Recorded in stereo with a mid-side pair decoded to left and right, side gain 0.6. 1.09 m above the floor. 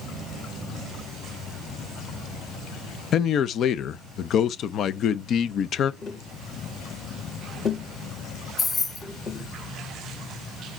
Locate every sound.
3.1 s a man speaking: 50° left, 0.6 m
6.0 s tapping: 40° left, 2.5 m
8.6 s keys jangling: 25° left, 1.7 m